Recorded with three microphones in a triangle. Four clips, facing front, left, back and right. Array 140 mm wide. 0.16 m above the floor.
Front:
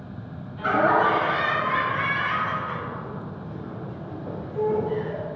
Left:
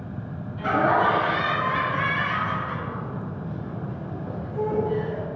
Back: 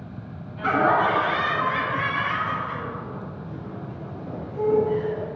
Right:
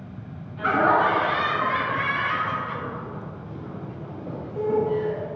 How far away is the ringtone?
No ringtone in this recording.